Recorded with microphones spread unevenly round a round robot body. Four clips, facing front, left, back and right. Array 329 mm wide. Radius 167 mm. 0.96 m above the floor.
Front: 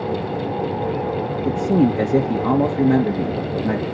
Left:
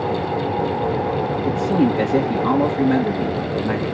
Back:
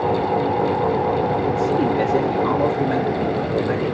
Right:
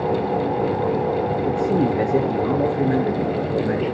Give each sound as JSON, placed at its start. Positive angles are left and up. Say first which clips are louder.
{"t": 1.4, "sound": "a man speaking", "louder": "left 3 dB, front 1 dB", "azimuth_deg": -5, "distance_m": 1.2}